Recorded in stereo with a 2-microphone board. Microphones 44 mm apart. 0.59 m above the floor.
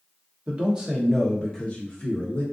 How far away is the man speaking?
About 0.9 m.